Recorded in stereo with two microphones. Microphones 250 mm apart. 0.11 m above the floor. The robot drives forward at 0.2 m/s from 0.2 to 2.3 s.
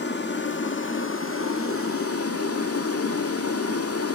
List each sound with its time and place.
0.0 s running water: 45° left (ahead or behind), 0.9 m; by 4.2 s 70° left (ahead or behind), 0.7 m